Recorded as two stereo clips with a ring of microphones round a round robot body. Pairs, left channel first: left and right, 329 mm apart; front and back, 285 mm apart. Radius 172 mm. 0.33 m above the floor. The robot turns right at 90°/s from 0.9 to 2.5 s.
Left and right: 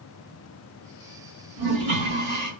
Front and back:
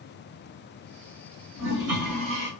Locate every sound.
1.6 s a toilet flushing: 140° right, 2.5 m; by 2.5 s 55° right, 2.5 m